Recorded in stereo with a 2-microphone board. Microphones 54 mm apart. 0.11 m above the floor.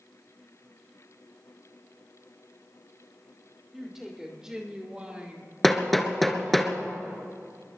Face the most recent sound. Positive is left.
turn(degrees=0)  # may be behind; listen again after turning